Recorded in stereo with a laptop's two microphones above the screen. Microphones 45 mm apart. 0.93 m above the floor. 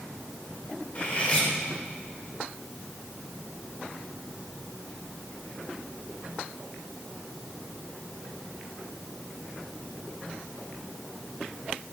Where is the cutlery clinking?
30° left (ahead or behind), 1.5 m.